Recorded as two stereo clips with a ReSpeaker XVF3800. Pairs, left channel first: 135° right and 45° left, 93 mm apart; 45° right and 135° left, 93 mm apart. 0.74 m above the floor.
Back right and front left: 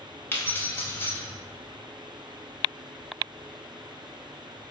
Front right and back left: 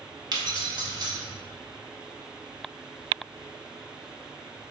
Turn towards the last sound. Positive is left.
turn(degrees=165)